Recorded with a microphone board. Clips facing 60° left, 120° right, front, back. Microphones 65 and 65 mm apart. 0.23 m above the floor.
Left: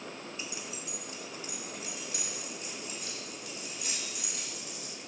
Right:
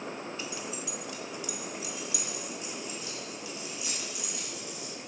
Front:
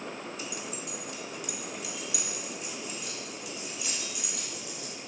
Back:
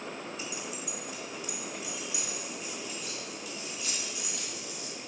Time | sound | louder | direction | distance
0.4 | keys jangling | right 4 dB, front 1 dB | 10° right | 1.6 m